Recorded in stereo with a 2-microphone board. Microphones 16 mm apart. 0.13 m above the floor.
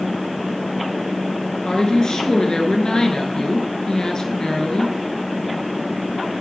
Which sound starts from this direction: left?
A woman speaking, at 1.6 s.